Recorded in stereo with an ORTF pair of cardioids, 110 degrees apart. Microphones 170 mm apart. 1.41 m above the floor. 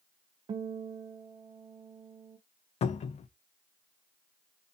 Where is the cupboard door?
40° left, 0.5 m.